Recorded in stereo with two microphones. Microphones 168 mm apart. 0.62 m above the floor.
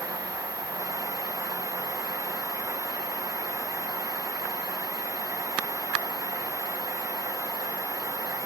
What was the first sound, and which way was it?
Only background noise.